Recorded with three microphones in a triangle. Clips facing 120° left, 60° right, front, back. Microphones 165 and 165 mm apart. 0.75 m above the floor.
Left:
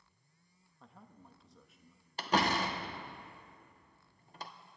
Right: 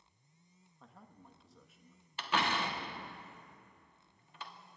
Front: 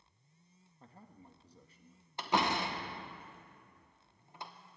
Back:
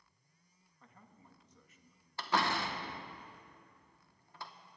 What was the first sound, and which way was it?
A man speaking, 30° left.